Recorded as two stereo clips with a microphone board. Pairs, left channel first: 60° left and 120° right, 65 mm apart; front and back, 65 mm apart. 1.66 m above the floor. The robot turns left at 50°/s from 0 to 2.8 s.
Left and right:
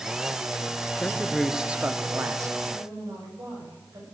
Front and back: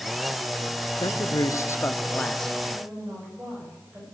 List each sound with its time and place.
1.0 s a man speaking: 10° right, 0.8 m; by 2.5 s 90° right, 0.8 m
2.7 s a woman speaking: 120° right, 8.5 m; by 4.0 s 125° right, 8.5 m